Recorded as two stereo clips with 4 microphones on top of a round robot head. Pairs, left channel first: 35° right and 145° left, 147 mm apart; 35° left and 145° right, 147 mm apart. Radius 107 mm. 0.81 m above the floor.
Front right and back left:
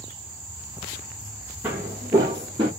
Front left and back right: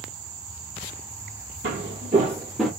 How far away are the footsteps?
About 1.3 m.